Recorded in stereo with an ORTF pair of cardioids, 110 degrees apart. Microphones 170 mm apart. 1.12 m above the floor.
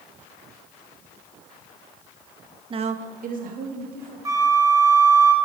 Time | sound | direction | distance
2.7 | a woman speaking | 30° right | 0.6 m
4.2 | a flute | 20° right | 0.9 m